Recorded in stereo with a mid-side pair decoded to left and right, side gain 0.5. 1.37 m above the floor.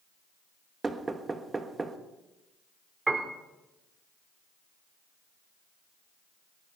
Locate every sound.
0.8 s knocking: 25° right, 1.6 m
3.1 s a piano: 25° right, 2.5 m